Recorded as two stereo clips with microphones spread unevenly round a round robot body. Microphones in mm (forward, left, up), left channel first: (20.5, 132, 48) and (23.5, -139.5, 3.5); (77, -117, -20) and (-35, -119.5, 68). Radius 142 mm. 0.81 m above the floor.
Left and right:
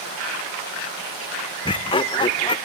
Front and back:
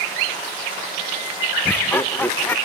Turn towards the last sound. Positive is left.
turn(degrees=15)